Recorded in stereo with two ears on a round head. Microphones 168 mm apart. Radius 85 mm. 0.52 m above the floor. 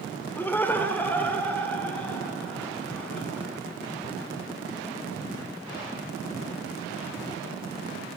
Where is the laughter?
10° left (ahead or behind), 1.6 m; by 3.5 s 5° left (ahead or behind), 6 m.